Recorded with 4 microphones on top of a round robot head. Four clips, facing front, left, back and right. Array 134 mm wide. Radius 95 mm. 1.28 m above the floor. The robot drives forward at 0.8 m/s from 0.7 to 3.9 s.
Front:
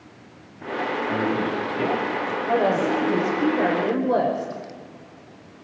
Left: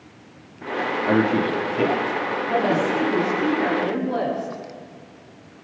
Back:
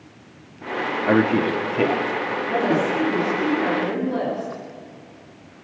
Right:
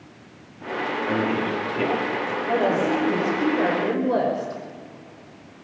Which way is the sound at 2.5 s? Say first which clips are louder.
Even, front 1 dB; 30° right.